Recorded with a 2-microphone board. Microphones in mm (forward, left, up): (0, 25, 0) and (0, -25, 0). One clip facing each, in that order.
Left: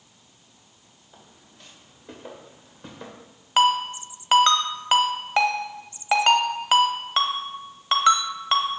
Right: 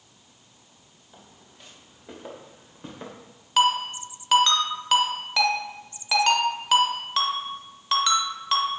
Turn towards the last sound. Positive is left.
turn(degrees=25)  # may be behind; listen again after turning